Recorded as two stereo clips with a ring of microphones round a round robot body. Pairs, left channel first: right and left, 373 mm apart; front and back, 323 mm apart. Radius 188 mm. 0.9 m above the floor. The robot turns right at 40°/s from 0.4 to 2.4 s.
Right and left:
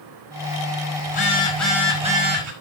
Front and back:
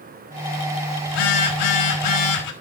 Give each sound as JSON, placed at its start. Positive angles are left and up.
{"t": 1.1, "sound": "a phone buzzing", "azimuth_deg": -25, "distance_m": 5.0}